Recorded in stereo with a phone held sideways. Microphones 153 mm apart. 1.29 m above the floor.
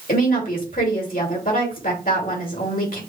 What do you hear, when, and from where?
0.1 s a woman speaking: 70° left (ahead or behind), 2.5 m